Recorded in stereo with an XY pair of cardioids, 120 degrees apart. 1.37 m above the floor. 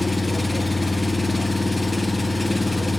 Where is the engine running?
5° left, 0.7 m.